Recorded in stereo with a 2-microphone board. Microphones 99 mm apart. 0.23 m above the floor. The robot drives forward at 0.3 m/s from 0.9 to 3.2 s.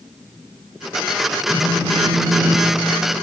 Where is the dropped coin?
I don't hear a dropped coin.